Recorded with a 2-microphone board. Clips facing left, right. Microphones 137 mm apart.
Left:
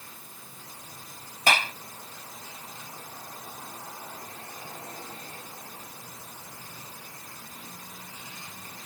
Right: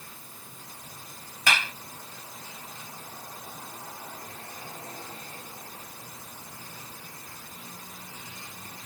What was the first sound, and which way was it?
A clap, 40° left (ahead or behind).